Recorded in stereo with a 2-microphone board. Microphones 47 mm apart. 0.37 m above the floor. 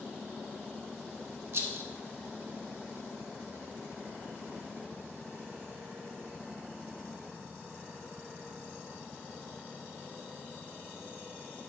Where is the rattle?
55° right (ahead or behind), 1.0 m.